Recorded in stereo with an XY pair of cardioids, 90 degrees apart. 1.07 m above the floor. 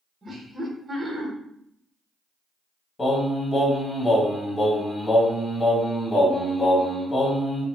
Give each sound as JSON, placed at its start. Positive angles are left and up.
{"t": 0.2, "sound": "laughter", "azimuth_deg": -40, "distance_m": 1.1}
{"t": 3.0, "sound": "singing", "azimuth_deg": 25, "distance_m": 1.8}